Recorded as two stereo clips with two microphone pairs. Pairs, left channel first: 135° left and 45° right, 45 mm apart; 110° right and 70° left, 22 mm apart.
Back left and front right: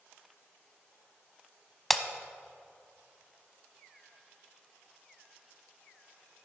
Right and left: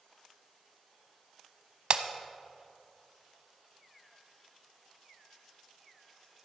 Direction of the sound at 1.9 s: 45° left.